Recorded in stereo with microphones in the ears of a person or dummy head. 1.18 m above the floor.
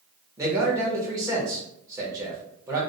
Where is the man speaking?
20° right (ahead or behind), 1.5 m.